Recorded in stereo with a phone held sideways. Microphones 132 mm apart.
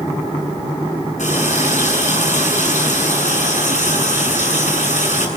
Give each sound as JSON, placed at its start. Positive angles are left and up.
{"t": 1.2, "sound": "a running tap", "side_deg": 65, "distance_m": 7.0}